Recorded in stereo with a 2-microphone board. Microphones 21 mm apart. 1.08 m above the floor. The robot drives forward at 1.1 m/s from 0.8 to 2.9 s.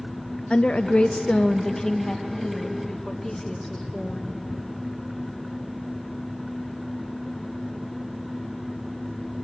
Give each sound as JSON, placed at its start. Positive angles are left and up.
{"t": 0.5, "sound": "a woman speaking", "side_deg": 55, "distance_m": 0.5}